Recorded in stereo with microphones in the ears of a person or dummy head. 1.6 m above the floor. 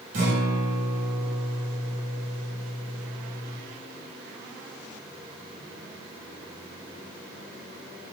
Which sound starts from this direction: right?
A guitar, at 0.1 s.